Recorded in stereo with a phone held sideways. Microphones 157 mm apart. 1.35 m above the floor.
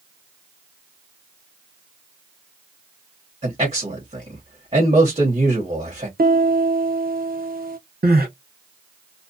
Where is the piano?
70° right (ahead or behind), 0.9 m.